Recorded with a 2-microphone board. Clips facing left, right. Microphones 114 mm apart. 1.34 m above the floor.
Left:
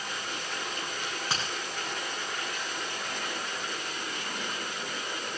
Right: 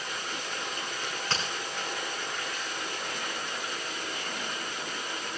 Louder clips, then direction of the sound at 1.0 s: Right 2 dB; 10° left (ahead or behind).